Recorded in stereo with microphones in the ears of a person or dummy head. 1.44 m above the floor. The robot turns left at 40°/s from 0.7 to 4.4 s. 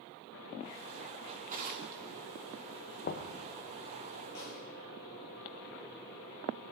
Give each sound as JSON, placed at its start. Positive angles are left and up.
{"t": 1.3, "sound": "a drawer", "azimuth_deg": -35, "distance_m": 2.0}
{"t": 3.0, "sound": "knocking", "side_deg": 50, "distance_m": 0.7}
{"t": 4.3, "sound": "a snare drum", "side_deg": 70, "distance_m": 8.0}